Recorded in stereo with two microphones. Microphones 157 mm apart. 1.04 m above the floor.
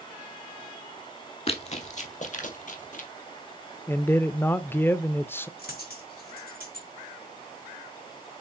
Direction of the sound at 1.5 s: 40° left (ahead or behind).